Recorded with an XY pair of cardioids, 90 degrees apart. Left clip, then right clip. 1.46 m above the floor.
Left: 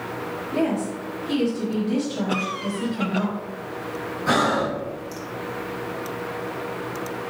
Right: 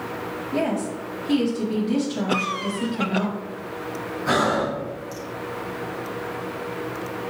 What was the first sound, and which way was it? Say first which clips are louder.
A woman speaking: even; 10° right.